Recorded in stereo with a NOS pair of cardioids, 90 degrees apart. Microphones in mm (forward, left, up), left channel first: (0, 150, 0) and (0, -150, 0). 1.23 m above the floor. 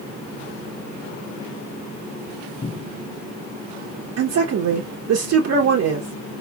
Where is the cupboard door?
15° left, 0.5 m.